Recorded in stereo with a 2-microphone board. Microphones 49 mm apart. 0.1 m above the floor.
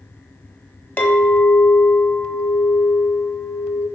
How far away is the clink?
About 0.8 m.